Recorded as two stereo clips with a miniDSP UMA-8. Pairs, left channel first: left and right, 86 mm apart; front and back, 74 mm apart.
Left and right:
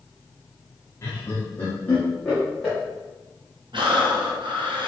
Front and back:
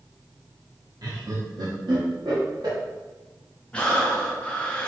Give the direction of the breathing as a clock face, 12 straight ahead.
2 o'clock.